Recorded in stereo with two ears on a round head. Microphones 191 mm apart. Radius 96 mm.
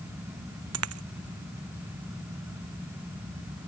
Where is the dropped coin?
85° right.